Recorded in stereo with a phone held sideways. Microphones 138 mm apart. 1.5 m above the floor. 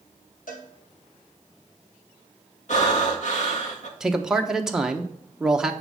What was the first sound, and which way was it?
A cowbell, 80° left.